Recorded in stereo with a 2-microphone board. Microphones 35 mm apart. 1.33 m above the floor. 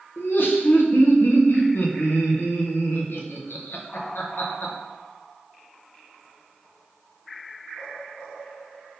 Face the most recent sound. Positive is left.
turn(degrees=80)